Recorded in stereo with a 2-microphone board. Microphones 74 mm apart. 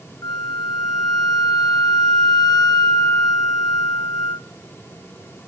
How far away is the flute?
About 1.0 m.